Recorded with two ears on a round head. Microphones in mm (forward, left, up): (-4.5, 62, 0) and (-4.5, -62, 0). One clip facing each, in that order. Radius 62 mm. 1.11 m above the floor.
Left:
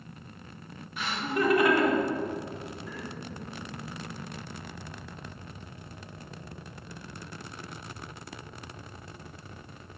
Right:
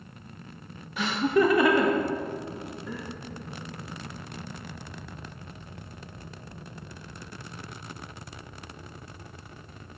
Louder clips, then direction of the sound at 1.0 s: Right 7 dB; 60° right (ahead or behind).